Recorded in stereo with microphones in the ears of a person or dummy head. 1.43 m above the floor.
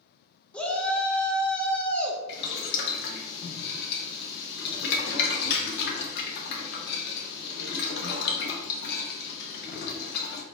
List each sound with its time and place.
0.5 s a shout: 5° left (ahead or behind), 0.7 m
2.3 s boiling: 55° left (ahead or behind), 0.8 m